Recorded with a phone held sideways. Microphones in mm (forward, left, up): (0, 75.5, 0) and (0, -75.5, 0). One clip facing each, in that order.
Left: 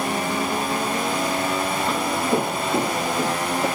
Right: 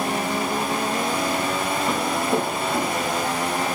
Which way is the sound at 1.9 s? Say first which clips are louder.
Left 1 dB; 5° right (ahead or behind).